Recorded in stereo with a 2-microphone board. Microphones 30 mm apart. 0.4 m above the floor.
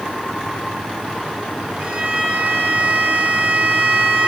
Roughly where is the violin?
Right.